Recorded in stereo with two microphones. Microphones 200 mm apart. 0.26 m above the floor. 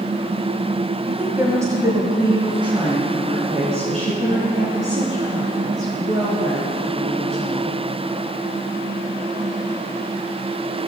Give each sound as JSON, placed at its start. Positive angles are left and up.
{"t": 1.1, "sound": "a woman speaking", "side_deg": -5, "distance_m": 1.2}